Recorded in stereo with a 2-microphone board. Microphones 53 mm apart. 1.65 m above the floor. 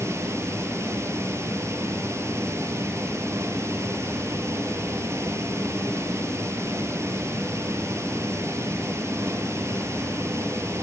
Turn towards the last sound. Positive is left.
turn(degrees=-60)  # may be behind; listen again after turning